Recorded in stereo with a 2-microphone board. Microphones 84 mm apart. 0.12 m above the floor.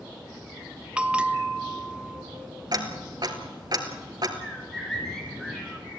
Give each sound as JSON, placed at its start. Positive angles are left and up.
{"t": 1.0, "sound": "a bell", "side_deg": -15, "distance_m": 0.7}
{"t": 2.7, "sound": "ticking", "side_deg": -55, "distance_m": 2.0}
{"t": 4.4, "sound": "a bird", "side_deg": 5, "distance_m": 1.8}